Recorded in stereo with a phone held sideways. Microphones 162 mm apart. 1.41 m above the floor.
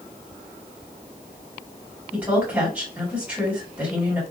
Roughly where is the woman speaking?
Centre.